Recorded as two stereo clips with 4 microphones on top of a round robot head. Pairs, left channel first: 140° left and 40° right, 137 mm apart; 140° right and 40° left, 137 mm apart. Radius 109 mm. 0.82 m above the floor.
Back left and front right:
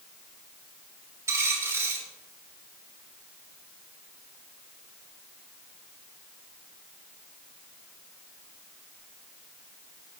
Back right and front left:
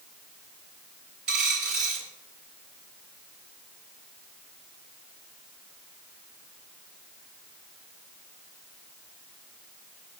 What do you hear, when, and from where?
1.3 s a dropped coin: 30° left, 6 m